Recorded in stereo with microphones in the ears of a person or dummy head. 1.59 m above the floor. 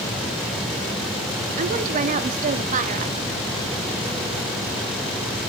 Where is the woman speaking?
45° right (ahead or behind), 0.8 m.